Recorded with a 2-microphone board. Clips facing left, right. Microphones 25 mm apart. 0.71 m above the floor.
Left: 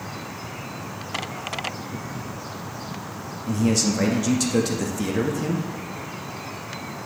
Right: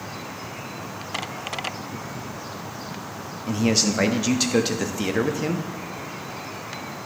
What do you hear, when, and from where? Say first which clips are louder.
3.5 s a man speaking: even; 30° right (ahead or behind), 0.7 m